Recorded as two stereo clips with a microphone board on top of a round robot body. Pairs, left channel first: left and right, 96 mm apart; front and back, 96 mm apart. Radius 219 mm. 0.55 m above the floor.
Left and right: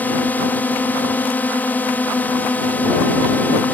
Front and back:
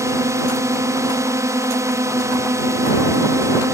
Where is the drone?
150° left.